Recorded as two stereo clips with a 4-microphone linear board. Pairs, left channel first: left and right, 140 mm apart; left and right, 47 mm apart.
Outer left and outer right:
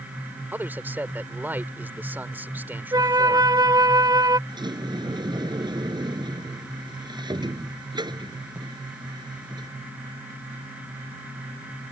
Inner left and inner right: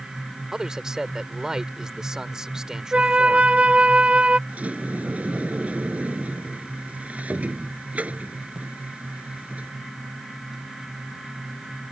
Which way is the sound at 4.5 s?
35° right (ahead or behind).